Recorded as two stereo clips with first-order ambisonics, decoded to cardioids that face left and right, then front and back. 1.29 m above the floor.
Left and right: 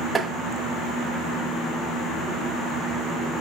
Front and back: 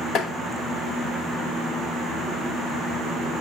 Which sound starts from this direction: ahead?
Tapping, at 0.1 s.